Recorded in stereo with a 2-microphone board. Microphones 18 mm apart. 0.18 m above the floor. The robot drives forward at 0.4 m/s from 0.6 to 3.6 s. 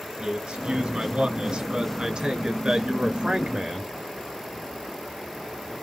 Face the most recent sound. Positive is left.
turn(degrees=-40)  # may be behind; listen again after turning